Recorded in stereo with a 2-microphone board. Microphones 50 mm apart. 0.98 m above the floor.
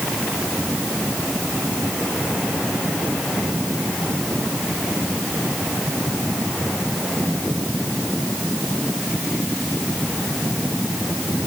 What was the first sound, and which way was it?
Only background noise.